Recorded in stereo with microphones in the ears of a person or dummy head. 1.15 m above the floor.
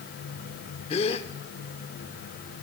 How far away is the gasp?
About 0.8 m.